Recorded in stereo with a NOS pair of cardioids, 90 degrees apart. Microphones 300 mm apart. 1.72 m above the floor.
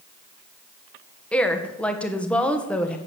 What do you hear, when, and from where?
1.3 s a woman speaking: 5° left, 1.7 m